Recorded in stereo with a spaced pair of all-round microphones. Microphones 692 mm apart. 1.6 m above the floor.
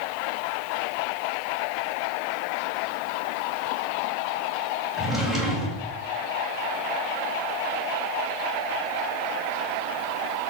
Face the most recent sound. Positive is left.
turn(degrees=0)  # may be behind; listen again after turning